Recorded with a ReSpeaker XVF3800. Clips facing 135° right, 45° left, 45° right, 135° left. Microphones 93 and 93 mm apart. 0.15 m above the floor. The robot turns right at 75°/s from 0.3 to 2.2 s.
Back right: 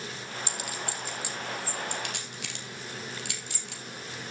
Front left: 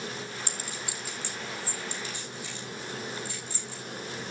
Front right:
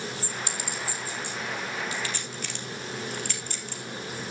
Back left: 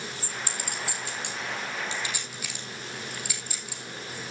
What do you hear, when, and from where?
0.5 s a clink: 85° left, 3 m; by 3.8 s 145° right, 3 m